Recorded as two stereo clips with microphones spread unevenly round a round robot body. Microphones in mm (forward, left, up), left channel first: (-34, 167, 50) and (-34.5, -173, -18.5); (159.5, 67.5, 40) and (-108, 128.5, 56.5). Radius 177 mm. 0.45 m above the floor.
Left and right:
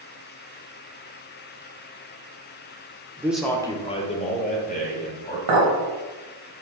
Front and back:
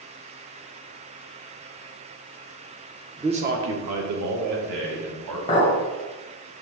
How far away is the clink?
About 1.6 m.